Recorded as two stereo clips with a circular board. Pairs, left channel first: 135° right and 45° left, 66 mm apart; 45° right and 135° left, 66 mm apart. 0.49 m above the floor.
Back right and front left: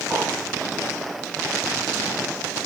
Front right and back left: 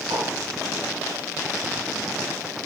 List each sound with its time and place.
0.1 s a whoosh: 125° left, 9.5 m